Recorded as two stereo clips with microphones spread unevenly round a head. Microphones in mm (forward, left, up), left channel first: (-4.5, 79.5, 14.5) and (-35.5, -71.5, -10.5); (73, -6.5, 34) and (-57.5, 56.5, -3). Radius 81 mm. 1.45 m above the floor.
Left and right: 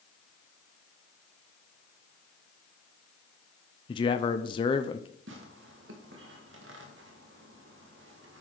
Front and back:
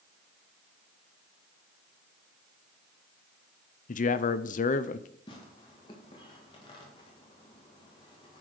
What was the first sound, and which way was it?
A man speaking, 15° left.